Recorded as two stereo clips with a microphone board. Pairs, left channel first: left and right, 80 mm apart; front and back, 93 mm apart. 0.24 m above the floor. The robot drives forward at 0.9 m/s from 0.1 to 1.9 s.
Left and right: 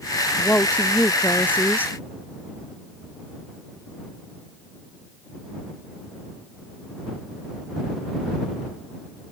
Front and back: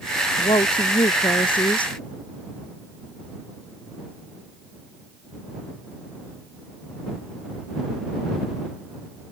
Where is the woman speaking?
20° left; by 1.9 s 25° left.